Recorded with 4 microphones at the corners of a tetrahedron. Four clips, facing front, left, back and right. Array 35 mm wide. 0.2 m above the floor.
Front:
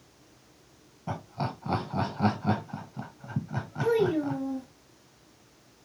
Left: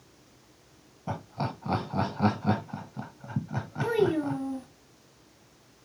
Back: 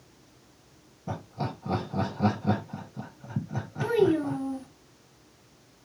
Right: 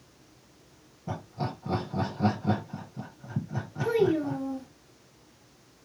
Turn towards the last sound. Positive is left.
turn(degrees=125)